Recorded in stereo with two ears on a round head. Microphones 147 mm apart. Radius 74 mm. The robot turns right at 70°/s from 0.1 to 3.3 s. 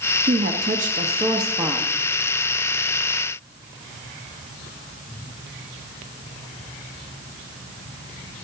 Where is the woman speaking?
110° right, 1.3 m; by 1.9 s 5° left, 1.3 m.